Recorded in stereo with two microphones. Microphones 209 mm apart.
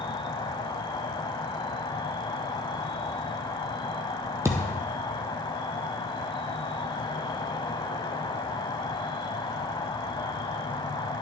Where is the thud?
15° right (ahead or behind), 1.1 m.